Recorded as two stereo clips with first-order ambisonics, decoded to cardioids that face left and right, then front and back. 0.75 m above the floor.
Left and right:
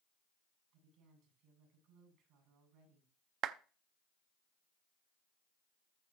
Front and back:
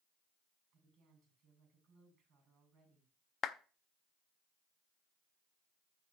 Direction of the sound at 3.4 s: 55° right.